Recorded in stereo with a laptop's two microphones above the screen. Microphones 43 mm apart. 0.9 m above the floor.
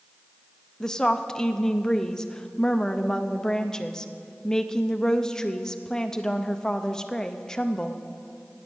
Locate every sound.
0.8 s a woman speaking: 15° left (ahead or behind), 0.6 m